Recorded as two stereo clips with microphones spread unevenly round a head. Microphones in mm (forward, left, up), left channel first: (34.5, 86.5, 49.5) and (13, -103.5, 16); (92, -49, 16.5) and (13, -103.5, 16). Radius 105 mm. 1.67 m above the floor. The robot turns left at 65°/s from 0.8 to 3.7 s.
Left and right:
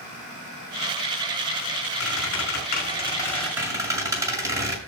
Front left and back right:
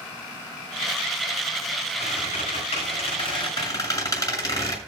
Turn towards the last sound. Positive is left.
turn(degrees=-20)